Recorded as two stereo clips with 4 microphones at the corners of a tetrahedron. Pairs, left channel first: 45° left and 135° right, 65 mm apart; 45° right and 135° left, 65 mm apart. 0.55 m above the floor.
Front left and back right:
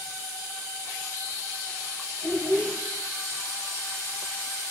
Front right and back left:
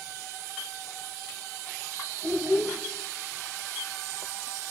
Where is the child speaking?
90° left, 2.5 m.